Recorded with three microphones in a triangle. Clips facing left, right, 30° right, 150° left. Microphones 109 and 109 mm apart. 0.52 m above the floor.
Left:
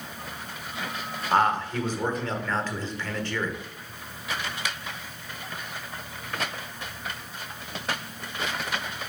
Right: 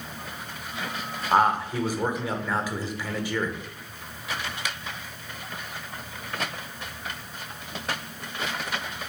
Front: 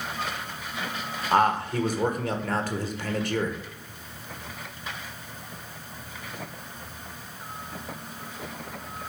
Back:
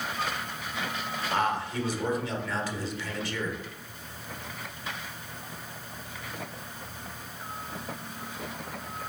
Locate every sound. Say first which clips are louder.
1.3 s a man speaking: right 1 dB, front 7 dB; 10° right, 1.4 m